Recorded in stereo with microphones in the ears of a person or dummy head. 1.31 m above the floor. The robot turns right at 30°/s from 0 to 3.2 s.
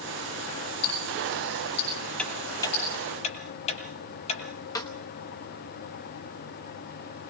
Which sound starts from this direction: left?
Ticking, at 0.8 s.